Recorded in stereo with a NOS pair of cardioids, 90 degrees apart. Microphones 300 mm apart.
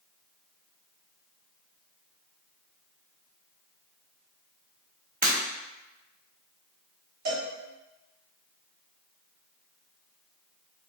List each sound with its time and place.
5.2 s breaking glass: 30° right, 1.8 m
7.2 s a cowbell: 65° right, 1.5 m